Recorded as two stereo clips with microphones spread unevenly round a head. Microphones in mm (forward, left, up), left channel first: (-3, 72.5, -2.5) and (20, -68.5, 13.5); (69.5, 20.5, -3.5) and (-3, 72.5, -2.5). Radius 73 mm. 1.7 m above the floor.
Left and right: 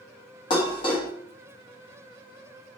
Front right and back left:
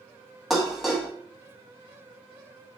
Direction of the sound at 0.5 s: 55° left.